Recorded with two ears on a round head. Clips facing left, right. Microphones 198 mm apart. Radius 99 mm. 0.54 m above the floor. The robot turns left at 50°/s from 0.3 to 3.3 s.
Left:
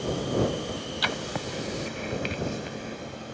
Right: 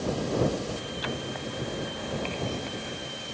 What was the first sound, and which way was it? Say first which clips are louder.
Writing: left 2 dB; 80° left.